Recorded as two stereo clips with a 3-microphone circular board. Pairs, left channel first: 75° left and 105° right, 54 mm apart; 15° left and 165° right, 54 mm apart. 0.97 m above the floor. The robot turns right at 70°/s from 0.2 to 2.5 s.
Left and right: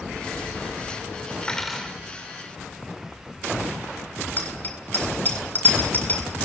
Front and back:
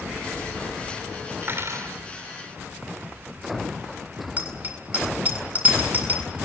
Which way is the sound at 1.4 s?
145° left.